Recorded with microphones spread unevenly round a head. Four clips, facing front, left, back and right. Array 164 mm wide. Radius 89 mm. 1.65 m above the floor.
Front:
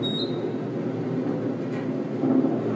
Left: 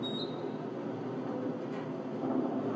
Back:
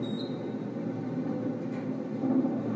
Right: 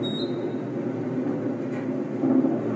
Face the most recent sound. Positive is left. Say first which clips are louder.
# right 9 dB, front 6 dB
turn(degrees=-50)